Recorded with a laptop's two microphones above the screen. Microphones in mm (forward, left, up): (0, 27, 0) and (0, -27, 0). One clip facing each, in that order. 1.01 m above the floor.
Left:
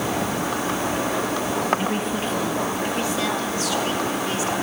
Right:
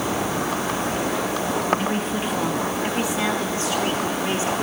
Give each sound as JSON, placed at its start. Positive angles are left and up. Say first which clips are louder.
{"t": 1.8, "sound": "a woman speaking", "louder": "even", "side_deg": 5, "distance_m": 1.2}